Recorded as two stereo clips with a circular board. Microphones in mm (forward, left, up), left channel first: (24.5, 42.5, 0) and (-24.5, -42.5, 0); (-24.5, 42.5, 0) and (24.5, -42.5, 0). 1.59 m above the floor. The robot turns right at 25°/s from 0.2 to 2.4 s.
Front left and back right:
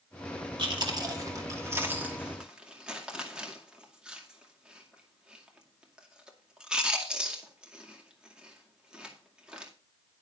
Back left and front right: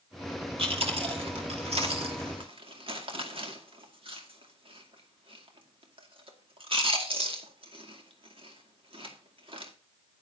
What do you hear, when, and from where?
0.6 s chewing: 85° right, 2 m; by 9.7 s 40° right, 2 m